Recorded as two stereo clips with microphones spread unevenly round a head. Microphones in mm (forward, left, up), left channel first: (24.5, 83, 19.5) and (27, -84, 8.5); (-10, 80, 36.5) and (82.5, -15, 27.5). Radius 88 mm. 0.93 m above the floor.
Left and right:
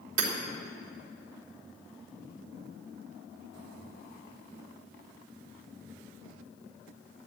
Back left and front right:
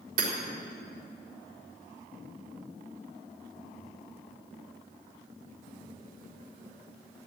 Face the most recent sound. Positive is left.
turn(degrees=-75)